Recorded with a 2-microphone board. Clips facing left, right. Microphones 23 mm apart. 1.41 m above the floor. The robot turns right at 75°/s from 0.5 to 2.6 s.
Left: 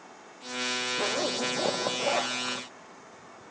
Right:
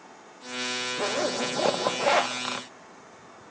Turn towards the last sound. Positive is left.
turn(degrees=-55)